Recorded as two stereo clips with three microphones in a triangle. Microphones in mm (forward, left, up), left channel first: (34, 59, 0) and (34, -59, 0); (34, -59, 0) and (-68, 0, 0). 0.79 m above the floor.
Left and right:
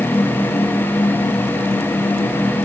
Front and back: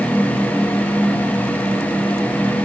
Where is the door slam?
I don't hear a door slam.